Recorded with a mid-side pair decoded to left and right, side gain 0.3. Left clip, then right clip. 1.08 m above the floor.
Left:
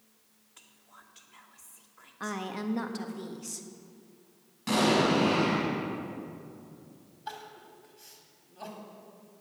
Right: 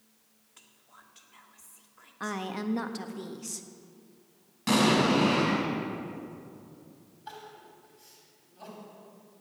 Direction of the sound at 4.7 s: 55° right.